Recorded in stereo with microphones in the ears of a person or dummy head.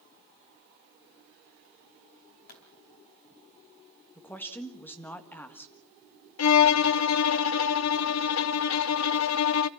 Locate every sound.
2.5 s a pop: 50° left (ahead or behind), 3.5 m
4.2 s a woman speaking: 15° left (ahead or behind), 1.6 m
6.4 s a violin: 80° left, 0.5 m